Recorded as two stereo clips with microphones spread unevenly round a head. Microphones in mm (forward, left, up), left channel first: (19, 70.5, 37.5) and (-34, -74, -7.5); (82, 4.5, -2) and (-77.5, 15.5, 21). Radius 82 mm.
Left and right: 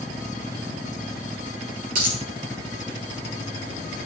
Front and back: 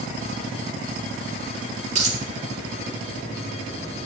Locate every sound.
1.9 s a dropped coin: 150° right, 3 m